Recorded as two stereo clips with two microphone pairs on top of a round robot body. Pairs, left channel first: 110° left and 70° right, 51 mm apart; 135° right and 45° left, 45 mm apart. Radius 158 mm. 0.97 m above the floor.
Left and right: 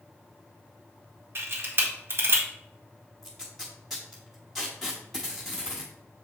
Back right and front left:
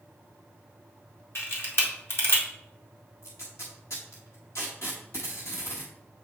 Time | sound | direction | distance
1.4 | a camera shutter | 105° right | 1.8 m
3.2 | tape being pulled | 165° right | 0.7 m